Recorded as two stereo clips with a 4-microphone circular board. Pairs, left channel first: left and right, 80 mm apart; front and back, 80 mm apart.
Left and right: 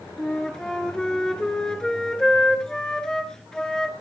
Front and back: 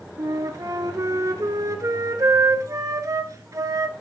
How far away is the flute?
About 1.3 m.